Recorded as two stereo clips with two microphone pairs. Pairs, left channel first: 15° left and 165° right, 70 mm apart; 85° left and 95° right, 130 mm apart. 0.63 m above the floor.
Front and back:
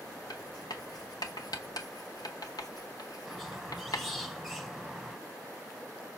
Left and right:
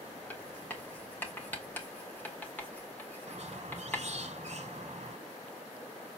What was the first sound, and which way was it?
Writing, 10° left.